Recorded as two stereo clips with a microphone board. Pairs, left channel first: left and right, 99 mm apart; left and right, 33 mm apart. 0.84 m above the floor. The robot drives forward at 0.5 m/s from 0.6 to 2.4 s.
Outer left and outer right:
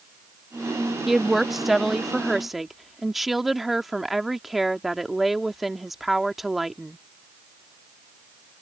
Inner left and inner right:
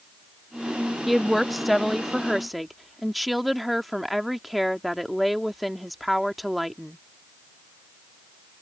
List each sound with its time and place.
1.1 s a woman speaking: 5° right (ahead or behind); by 7.0 s centre (ahead or behind)